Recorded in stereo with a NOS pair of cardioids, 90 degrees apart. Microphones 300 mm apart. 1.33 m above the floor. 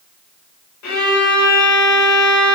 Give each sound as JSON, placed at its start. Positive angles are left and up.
{"t": 0.8, "sound": "a violin", "azimuth_deg": 70, "distance_m": 1.0}